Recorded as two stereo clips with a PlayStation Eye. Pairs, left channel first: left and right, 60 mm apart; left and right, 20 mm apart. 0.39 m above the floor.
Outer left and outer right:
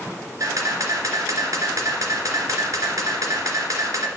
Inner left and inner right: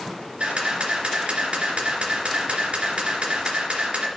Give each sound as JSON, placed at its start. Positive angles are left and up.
{"t": 0.4, "sound": "a camera shutter", "side_deg": -80, "distance_m": 2.0}